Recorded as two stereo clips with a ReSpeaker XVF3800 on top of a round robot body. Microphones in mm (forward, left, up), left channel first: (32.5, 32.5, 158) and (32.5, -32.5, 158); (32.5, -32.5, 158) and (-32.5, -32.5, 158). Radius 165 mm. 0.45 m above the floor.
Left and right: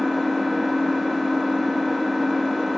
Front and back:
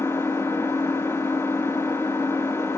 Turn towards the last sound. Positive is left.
turn(degrees=-5)